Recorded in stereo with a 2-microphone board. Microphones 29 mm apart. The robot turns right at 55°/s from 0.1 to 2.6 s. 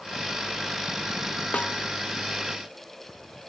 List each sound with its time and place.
1.5 s a snare drum: 55° left (ahead or behind); by 1.8 s 70° left (ahead or behind)